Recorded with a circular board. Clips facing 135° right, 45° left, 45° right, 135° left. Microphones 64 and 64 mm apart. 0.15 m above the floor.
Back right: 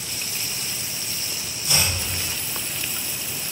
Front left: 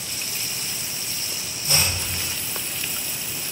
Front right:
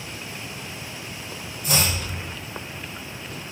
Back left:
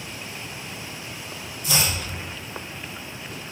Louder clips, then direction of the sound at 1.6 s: Even, front right 1 dB; 5° right.